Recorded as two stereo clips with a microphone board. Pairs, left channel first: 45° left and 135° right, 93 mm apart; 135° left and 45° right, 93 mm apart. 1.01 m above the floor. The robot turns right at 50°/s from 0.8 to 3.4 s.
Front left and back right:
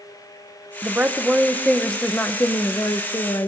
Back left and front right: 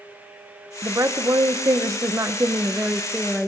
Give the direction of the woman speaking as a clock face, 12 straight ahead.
3 o'clock.